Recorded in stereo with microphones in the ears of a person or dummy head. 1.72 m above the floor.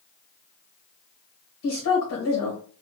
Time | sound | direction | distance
1.6 | a woman speaking | 65° left (ahead or behind) | 1.3 m